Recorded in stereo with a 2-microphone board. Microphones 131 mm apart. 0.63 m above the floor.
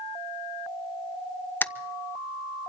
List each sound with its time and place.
1.6 s a camera shutter: 15° left (ahead or behind), 0.6 m